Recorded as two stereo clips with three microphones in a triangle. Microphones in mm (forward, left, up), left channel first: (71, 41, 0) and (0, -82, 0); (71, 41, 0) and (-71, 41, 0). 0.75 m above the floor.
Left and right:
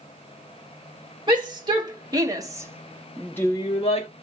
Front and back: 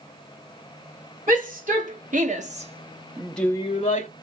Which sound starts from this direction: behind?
A shout, at 1.3 s.